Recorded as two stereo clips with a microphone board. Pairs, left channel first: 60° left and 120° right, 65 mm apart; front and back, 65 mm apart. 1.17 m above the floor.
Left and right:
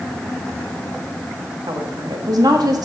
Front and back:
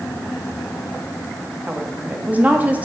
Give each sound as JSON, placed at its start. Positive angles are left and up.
{"t": 1.7, "sound": "a woman speaking", "azimuth_deg": -115, "distance_m": 1.6}